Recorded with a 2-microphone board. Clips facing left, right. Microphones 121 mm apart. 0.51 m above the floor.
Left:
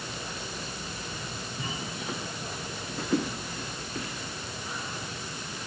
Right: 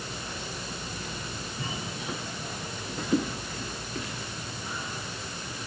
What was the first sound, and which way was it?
Only background noise.